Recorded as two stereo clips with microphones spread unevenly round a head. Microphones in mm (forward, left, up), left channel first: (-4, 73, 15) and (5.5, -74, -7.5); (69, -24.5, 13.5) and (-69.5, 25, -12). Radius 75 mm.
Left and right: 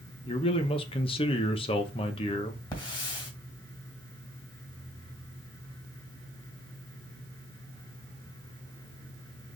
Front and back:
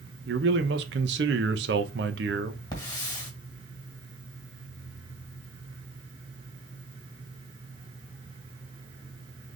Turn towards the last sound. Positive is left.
turn(degrees=35)